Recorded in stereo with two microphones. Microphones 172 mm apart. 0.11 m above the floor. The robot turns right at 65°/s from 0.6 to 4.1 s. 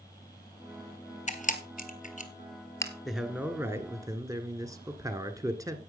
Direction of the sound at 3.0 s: Centre (ahead or behind).